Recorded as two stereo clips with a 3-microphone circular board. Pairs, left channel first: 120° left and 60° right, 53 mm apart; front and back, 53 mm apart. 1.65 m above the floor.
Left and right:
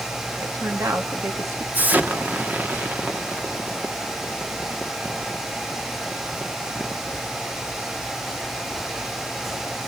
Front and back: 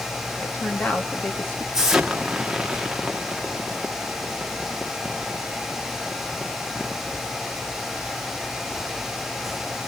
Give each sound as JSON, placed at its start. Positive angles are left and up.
{"t": 0.4, "sound": "a woman speaking", "azimuth_deg": -55, "distance_m": 3.0}
{"t": 1.7, "sound": "an explosion", "azimuth_deg": -100, "distance_m": 1.6}